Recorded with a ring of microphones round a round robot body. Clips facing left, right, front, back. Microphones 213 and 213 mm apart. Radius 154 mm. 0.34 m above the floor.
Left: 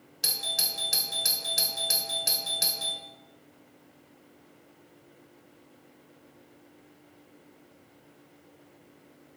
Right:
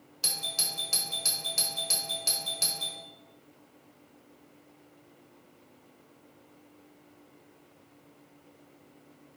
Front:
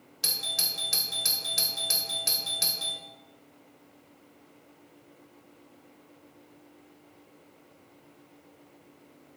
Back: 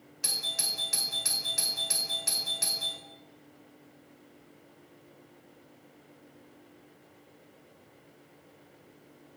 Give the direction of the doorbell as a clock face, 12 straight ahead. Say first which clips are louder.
Left 2 dB, front 2 dB; 11 o'clock.